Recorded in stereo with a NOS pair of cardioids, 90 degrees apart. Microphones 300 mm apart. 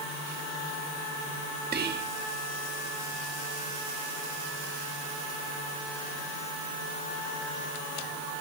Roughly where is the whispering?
Ahead right.